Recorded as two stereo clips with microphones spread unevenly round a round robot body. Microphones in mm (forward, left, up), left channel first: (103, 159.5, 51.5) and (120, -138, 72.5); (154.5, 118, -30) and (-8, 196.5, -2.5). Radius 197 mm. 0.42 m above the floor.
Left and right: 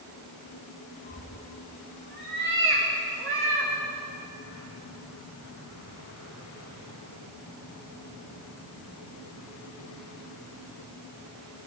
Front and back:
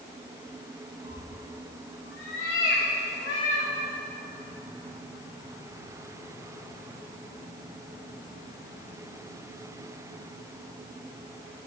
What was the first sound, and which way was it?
A cat meowing, 25° right.